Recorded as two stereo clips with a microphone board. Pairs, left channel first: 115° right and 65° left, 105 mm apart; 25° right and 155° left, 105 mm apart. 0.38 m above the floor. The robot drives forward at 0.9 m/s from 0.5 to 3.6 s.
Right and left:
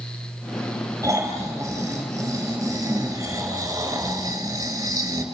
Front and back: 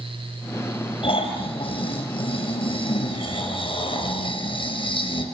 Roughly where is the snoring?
Ahead.